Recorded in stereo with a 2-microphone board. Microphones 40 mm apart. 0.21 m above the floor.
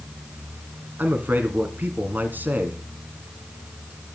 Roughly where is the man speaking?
Right.